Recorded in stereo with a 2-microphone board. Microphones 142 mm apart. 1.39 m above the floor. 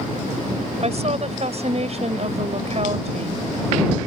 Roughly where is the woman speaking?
Right.